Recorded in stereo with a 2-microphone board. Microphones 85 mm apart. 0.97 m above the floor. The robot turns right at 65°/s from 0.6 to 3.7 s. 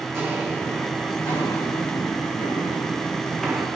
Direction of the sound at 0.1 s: 30° right (ahead or behind).